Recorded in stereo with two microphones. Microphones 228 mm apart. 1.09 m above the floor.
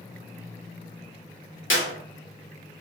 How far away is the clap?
About 1.4 m.